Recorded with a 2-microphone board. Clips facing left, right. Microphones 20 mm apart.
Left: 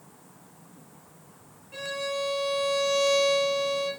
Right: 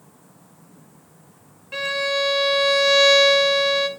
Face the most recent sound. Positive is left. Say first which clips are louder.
# right 9 dB
turn(degrees=-50)  # may be behind; listen again after turning